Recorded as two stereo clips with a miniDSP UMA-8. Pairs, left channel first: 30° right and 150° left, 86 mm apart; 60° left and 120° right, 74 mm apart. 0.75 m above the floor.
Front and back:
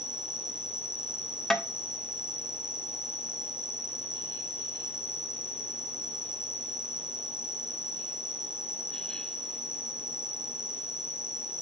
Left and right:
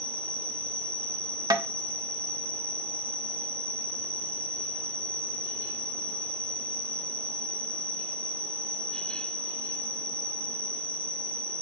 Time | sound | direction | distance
0.0 | an insect | 130° left | 1.2 m
1.5 | tapping | 115° right | 0.7 m